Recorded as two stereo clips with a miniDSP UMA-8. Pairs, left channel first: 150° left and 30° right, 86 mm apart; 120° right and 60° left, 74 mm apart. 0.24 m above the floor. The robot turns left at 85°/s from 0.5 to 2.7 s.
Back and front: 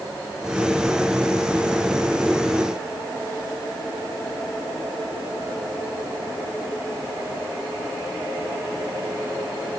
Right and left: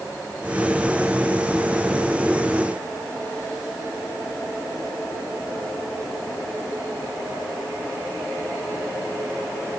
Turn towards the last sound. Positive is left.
No sound to turn to.